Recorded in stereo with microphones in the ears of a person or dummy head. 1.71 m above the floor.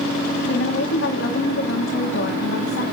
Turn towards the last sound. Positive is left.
turn(degrees=70)  # may be behind; listen again after turning